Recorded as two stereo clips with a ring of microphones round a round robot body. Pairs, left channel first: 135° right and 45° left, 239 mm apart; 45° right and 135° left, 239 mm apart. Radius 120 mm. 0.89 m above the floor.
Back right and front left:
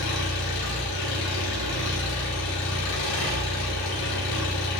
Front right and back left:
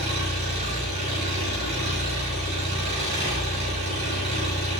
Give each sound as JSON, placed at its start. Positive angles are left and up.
{"t": 0.0, "sound": "an engine running", "azimuth_deg": -160, "distance_m": 5.0}